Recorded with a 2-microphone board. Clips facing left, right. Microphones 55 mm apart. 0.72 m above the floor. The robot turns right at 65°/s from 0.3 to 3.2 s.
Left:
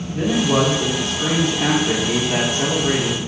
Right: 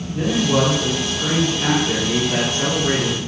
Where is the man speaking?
20° left, 1.3 m; by 3.2 s 155° right, 1.3 m.